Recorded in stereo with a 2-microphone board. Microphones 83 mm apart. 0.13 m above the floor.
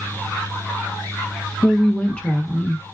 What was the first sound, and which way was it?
A woman speaking, 15° left (ahead or behind).